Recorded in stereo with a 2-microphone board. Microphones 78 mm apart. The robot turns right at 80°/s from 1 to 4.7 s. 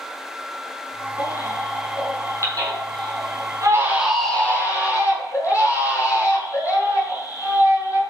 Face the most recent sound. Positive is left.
turn(degrees=40)